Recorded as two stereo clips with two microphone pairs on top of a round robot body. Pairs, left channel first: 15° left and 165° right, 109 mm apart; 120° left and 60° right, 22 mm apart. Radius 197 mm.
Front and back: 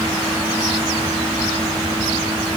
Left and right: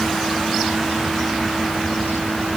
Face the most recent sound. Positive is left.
No sound to turn to.